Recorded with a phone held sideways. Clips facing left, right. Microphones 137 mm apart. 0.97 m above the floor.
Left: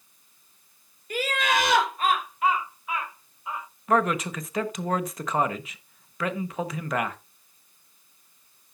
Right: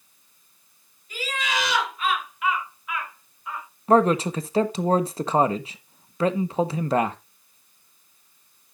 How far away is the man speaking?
About 1.0 m.